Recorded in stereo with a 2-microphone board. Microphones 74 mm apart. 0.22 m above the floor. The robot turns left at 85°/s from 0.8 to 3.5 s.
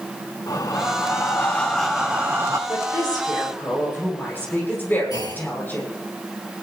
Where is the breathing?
90° left, 1.7 m; by 2.6 s 60° right, 1.7 m.